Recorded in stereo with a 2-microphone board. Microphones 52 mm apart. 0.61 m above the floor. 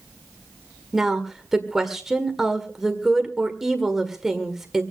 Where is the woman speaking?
10° right (ahead or behind), 1.5 m.